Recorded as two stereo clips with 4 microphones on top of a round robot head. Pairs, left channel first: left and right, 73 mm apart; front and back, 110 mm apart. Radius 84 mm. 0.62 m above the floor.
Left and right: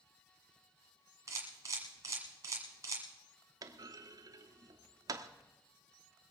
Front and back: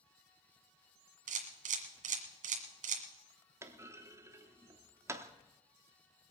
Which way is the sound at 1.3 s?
155° right.